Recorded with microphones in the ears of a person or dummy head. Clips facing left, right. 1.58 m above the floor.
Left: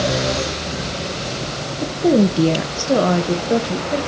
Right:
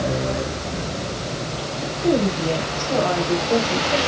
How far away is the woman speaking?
About 1.3 m.